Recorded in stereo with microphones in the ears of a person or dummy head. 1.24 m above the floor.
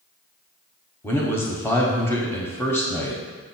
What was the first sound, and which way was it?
A man speaking, 15° left (ahead or behind).